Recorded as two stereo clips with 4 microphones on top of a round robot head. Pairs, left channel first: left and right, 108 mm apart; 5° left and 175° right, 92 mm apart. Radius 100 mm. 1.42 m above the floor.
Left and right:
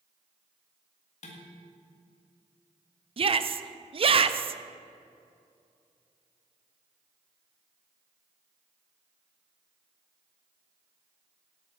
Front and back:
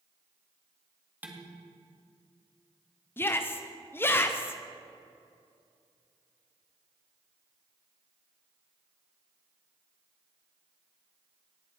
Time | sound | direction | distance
1.2 | dishes clattering | 115° left | 1.9 m
3.2 | a shout | 60° right | 0.8 m